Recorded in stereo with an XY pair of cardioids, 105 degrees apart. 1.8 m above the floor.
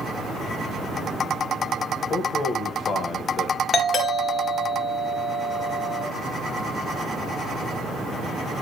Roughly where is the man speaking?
Ahead left.